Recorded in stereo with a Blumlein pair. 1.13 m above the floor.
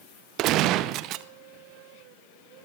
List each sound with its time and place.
0.4 s a gunshot: 35° right, 0.7 m